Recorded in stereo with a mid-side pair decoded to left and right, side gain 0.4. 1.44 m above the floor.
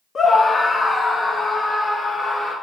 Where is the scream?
50° left, 1.3 m; by 2.5 s 40° left, 3.5 m.